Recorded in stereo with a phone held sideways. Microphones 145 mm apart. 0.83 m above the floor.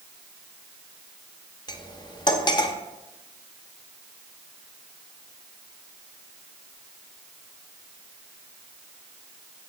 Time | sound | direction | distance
1.7 | cutlery clinking | 30° left (ahead or behind) | 0.5 m